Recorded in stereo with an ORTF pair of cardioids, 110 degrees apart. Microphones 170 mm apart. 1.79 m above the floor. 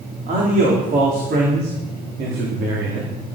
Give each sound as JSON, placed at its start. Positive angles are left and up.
{"t": 0.3, "sound": "a man speaking", "azimuth_deg": -55, "distance_m": 4.0}